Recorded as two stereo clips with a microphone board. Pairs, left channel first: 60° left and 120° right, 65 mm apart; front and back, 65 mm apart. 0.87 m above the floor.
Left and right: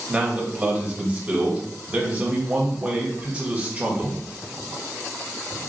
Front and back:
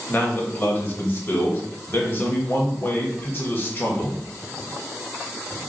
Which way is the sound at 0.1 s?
50° right.